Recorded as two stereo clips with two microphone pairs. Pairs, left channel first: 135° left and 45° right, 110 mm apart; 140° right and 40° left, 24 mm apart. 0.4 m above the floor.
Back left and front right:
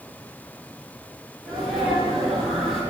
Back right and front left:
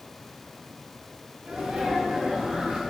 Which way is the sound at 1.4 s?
45° left.